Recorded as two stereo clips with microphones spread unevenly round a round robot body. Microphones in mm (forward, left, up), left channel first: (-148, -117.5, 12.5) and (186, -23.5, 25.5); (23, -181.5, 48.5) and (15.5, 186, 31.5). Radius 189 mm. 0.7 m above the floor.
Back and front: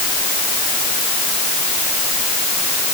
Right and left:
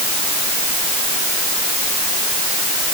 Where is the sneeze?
No sneeze in this recording.